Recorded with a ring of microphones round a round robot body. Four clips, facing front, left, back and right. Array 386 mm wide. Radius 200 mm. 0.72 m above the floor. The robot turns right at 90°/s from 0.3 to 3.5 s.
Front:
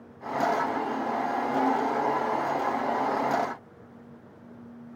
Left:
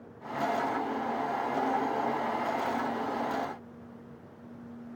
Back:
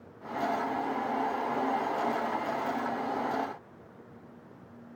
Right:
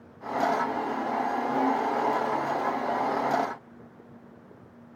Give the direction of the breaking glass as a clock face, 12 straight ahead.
I don't hear breaking glass.